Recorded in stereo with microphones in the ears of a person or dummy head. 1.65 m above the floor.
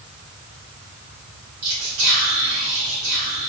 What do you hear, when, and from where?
1.6 s whispering: 70° right (ahead or behind), 1.7 m